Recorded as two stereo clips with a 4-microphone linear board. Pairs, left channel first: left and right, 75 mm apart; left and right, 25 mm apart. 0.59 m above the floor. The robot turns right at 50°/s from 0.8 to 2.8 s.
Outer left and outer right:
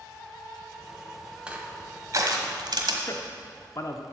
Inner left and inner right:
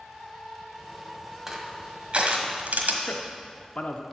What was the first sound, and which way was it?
Crushing, 15° right (ahead or behind).